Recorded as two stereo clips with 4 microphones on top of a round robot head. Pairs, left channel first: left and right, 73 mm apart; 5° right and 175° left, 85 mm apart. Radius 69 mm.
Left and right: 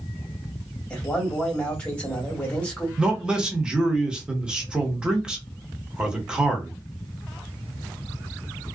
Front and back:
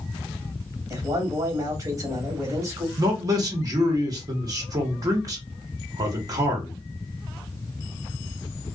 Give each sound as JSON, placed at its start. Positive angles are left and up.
{"t": 0.9, "sound": "a man speaking", "azimuth_deg": 155, "distance_m": 1.6}
{"t": 3.0, "sound": "a man speaking", "azimuth_deg": -165, "distance_m": 1.2}